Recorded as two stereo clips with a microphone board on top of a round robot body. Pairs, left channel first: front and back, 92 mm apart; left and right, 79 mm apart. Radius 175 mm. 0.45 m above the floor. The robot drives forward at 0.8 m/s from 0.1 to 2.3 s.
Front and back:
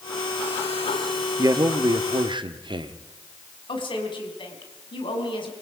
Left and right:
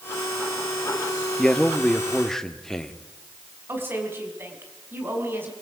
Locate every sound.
1.4 s a man speaking: 165° left, 1.2 m; by 3.1 s 175° left, 1.7 m
3.7 s a woman speaking: 30° right, 5 m